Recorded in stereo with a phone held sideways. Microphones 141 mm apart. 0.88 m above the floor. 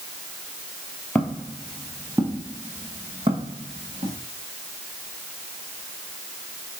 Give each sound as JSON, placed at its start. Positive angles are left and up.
{"t": 1.1, "sound": "footsteps", "side_deg": 10, "distance_m": 1.4}